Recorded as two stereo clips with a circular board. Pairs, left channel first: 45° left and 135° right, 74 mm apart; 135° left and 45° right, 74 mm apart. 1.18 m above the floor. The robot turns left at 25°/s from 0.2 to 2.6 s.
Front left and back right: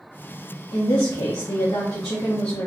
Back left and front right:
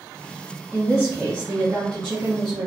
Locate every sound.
0.7 s a woman speaking: 45° left, 0.6 m; by 2.7 s straight ahead, 0.6 m